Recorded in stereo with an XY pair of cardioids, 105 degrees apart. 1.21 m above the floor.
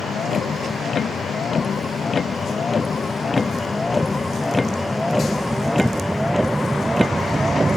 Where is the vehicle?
50° left; by 7.8 s 15° right.